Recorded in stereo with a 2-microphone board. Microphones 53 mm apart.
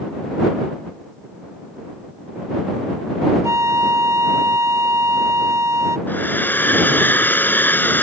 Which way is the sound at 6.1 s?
40° left (ahead or behind).